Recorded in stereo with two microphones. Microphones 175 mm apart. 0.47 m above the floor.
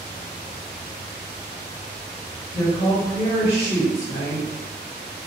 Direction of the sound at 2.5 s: 20° left (ahead or behind).